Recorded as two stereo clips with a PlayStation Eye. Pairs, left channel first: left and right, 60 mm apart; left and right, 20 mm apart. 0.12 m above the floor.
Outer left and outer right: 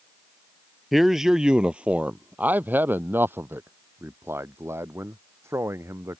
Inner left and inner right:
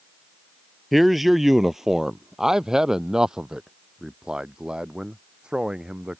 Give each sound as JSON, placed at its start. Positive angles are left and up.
{"t": 0.9, "sound": "a man speaking", "side_deg": 0}